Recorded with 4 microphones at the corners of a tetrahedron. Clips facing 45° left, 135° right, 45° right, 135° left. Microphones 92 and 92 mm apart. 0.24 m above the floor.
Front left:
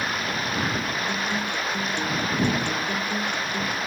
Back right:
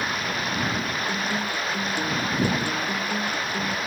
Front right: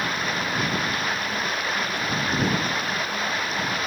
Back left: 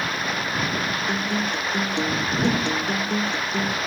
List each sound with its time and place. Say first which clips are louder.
1.1 s a guitar: even, back left 2 dB; 140° left